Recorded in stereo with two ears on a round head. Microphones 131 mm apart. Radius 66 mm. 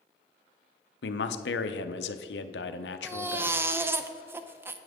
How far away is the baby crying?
About 0.5 m.